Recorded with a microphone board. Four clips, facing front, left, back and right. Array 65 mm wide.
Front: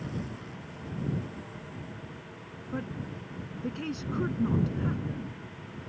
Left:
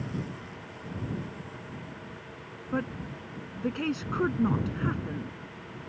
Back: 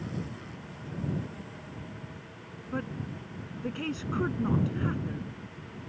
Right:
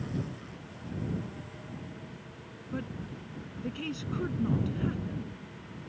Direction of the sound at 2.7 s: 100° left.